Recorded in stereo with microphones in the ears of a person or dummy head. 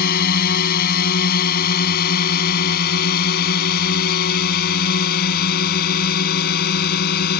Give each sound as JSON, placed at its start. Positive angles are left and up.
{"t": 0.0, "sound": "a drone", "side_deg": 55}